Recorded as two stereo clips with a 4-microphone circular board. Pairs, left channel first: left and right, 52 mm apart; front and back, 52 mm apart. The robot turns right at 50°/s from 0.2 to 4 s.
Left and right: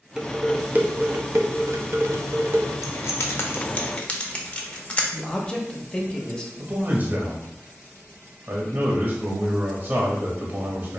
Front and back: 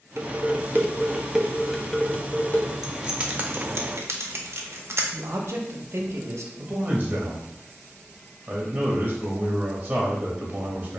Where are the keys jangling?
95° left, 0.6 m; by 5.0 s 155° left, 0.6 m.